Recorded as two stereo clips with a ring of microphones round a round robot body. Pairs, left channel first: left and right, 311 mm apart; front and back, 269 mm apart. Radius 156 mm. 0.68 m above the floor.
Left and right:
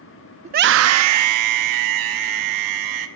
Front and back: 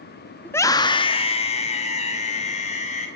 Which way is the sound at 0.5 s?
75° right.